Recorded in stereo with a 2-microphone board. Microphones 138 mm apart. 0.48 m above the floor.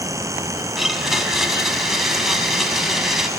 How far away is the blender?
About 1.2 m.